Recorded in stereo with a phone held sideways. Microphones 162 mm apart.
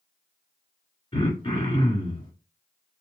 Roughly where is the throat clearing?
Left.